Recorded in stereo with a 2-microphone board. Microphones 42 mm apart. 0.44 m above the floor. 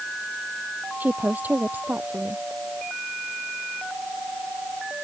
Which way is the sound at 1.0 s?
45° right (ahead or behind).